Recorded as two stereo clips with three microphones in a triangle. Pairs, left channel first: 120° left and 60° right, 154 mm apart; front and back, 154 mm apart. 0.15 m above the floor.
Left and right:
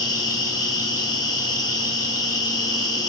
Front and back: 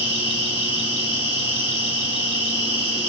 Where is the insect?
170° left, 0.8 m.